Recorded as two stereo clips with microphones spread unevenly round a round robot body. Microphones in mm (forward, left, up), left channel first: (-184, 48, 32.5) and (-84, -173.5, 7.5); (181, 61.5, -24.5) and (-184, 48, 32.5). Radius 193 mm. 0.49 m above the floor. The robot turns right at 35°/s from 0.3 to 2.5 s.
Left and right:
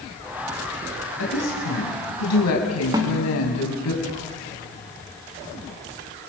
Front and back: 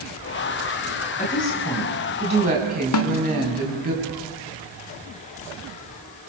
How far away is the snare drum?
About 1.5 m.